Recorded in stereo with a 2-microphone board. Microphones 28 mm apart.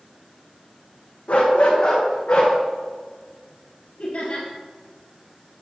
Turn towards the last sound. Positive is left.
turn(degrees=65)  # may be behind; listen again after turning